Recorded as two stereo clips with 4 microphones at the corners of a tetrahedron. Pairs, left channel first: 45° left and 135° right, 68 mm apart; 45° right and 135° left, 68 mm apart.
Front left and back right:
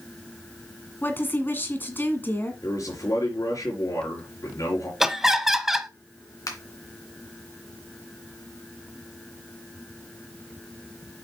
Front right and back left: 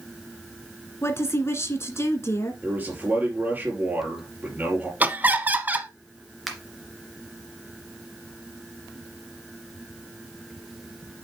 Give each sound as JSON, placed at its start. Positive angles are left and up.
{"t": 1.0, "sound": "a woman speaking", "azimuth_deg": -5, "distance_m": 1.6}
{"t": 2.6, "sound": "a man speaking", "azimuth_deg": 75, "distance_m": 4.0}
{"t": 5.0, "sound": "laughter", "azimuth_deg": 145, "distance_m": 1.0}
{"t": 6.5, "sound": "a finger snap", "azimuth_deg": 45, "distance_m": 2.5}